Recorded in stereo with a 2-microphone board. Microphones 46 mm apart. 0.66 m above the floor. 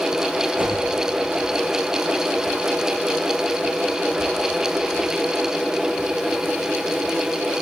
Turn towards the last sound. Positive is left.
turn(degrees=-45)  # may be behind; listen again after turning